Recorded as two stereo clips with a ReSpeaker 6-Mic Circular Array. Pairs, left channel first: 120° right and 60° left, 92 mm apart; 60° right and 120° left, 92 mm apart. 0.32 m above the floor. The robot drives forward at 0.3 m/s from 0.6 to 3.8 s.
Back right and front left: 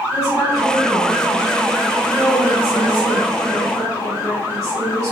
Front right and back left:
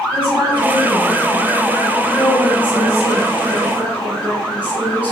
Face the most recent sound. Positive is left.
turn(degrees=-170)